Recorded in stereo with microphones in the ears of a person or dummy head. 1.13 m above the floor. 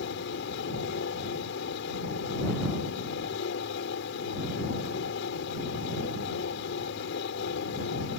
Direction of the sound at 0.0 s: 75° left (ahead or behind).